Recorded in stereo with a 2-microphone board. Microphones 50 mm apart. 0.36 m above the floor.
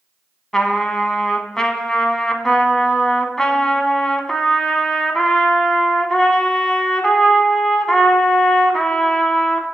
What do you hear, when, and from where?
0.5 s a trumpet: 10° left (ahead or behind), 0.8 m